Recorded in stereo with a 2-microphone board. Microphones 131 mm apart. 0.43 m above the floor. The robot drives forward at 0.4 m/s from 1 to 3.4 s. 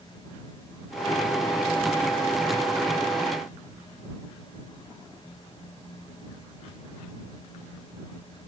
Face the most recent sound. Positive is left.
No sound to turn to.